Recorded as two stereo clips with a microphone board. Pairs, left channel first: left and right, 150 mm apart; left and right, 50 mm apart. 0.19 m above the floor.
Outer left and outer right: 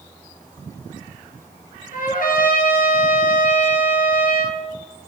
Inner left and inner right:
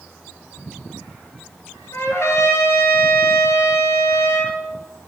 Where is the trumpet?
65° left (ahead or behind), 1.3 m.